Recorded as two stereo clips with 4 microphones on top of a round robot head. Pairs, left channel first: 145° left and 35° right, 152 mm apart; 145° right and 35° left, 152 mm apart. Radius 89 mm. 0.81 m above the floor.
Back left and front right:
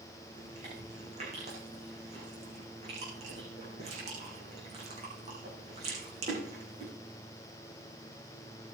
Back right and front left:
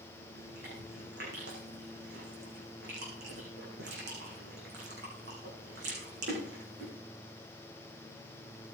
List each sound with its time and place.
0.3 s chewing: 15° left, 8 m